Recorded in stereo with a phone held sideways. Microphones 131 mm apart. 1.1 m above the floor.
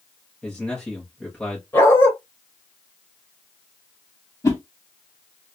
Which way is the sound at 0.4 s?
5° left (ahead or behind).